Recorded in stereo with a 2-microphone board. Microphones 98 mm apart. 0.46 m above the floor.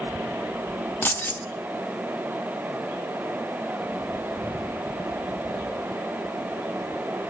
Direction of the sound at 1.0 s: 20° left (ahead or behind).